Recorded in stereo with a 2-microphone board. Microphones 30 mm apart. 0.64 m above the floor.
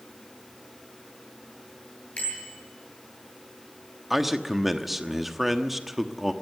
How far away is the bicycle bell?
About 9 m.